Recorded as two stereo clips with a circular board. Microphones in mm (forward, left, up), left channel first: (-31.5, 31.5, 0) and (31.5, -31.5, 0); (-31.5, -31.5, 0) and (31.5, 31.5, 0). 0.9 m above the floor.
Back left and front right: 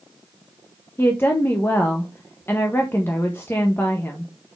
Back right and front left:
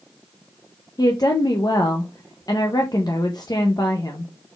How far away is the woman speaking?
About 0.5 m.